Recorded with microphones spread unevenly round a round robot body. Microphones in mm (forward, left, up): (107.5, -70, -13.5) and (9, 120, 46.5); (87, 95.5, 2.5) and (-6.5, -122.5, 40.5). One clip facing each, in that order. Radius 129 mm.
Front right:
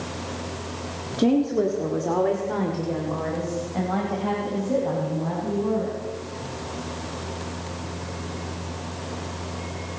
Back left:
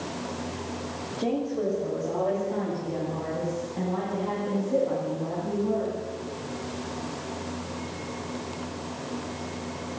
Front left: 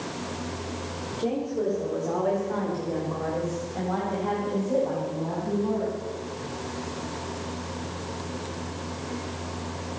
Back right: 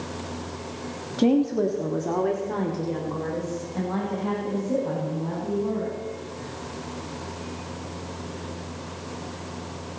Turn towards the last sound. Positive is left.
turn(degrees=-60)